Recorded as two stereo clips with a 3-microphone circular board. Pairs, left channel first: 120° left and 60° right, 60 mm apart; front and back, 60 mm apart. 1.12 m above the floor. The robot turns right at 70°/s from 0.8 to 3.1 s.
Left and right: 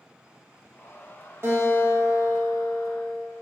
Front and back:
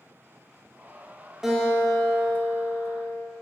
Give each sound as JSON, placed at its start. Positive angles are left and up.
{"t": 1.4, "sound": "a guitar", "azimuth_deg": -100, "distance_m": 1.6}